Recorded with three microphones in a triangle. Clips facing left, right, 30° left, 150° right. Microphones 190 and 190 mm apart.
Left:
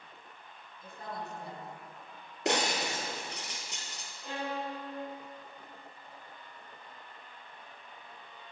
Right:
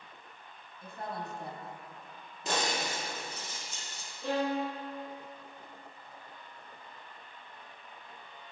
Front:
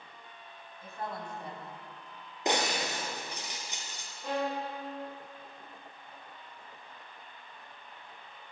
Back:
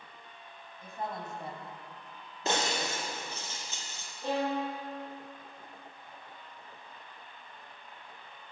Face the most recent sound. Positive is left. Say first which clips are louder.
# right 6 dB, back 2 dB
turn(degrees=-90)